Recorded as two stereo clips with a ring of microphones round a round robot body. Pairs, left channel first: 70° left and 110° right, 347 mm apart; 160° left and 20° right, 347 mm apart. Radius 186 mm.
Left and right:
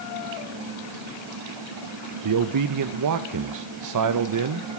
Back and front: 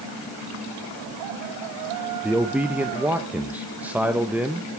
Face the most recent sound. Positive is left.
turn(degrees=-110)